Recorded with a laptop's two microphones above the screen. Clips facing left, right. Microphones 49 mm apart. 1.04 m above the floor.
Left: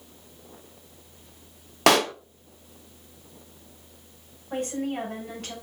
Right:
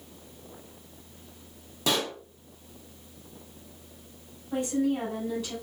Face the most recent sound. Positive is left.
turn(degrees=60)  # may be behind; listen again after turning